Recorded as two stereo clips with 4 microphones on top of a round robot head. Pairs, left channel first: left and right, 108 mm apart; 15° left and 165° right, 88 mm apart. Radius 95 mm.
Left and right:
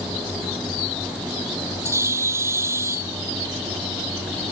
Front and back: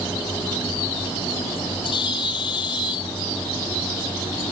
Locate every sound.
1.9 s a bird: 25° right